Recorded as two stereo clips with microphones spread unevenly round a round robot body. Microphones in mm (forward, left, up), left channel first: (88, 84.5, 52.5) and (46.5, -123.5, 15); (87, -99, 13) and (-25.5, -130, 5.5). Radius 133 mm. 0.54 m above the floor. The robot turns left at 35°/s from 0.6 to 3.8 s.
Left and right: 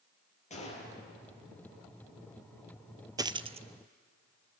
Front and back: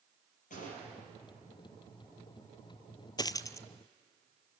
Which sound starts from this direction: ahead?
A gunshot, at 0.5 s.